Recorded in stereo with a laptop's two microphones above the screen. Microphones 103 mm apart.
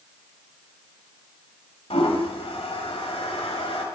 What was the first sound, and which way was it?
A toilet flushing, 75° left (ahead or behind).